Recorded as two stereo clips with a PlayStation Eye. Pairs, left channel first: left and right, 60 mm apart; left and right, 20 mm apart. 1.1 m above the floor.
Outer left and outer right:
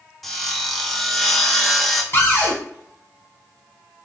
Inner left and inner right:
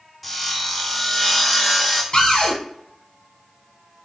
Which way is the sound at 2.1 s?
40° left (ahead or behind).